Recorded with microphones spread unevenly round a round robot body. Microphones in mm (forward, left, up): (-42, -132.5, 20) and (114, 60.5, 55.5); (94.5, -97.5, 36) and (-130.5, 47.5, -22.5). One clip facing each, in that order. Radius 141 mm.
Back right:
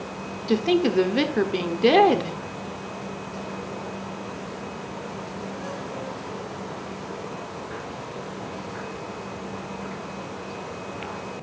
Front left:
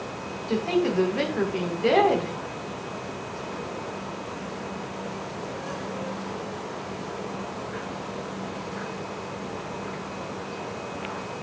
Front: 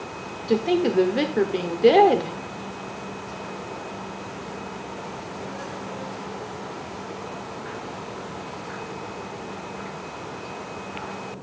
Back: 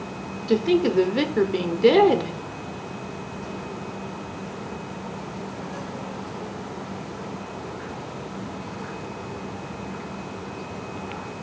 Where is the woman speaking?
150° right, 1.2 m.